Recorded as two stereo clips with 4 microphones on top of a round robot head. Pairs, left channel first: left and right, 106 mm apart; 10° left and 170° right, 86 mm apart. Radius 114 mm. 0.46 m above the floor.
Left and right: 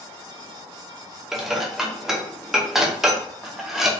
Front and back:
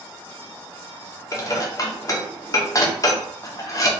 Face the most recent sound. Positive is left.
turn(degrees=-5)